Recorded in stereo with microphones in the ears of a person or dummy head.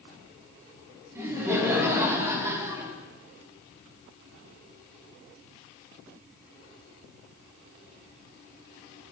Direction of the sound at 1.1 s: 15° right (ahead or behind).